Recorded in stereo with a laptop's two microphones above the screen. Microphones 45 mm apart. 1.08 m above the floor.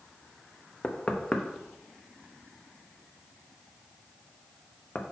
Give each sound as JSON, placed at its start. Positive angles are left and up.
{"t": 0.8, "sound": "knocking", "side_deg": 25, "distance_m": 0.8}